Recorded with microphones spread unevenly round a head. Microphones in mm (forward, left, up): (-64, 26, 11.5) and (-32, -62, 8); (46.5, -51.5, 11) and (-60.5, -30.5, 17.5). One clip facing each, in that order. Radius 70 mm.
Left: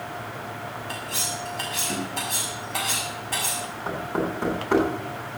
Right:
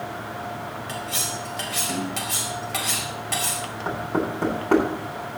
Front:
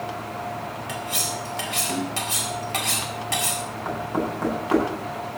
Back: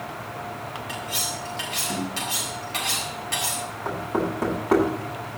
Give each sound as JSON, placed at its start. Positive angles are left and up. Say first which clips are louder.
{"t": 0.9, "sound": "cutlery clinking", "louder": "right 2 dB, front 2 dB", "azimuth_deg": -50, "distance_m": 4.0}
{"t": 3.9, "sound": "knocking", "louder": "right 2 dB, back 1 dB", "azimuth_deg": -110, "distance_m": 9.0}